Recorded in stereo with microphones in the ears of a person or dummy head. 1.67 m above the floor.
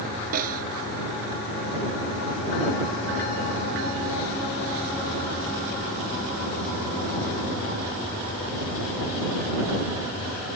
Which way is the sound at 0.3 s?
50° right (ahead or behind).